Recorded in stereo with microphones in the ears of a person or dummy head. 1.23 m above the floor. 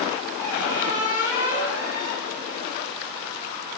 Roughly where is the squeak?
Centre.